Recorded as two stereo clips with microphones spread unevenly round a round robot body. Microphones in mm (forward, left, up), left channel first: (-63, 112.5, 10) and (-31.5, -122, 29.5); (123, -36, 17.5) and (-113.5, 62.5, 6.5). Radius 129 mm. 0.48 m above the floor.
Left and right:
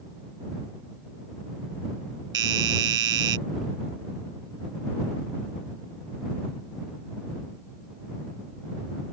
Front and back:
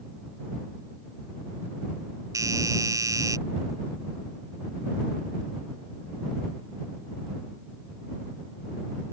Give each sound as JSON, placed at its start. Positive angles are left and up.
{"t": 2.3, "sound": "a doorbell", "azimuth_deg": -125}